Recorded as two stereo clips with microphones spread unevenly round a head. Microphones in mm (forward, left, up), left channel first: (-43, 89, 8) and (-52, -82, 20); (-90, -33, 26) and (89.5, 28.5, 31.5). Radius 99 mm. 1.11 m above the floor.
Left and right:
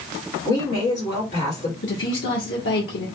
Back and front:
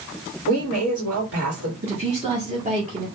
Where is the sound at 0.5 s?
40° left, 2 m.